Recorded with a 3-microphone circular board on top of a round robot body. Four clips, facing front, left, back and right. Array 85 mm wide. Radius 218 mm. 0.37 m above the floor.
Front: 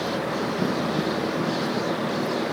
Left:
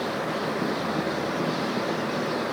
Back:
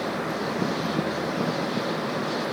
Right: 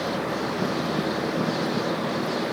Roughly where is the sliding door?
No sliding door in this recording.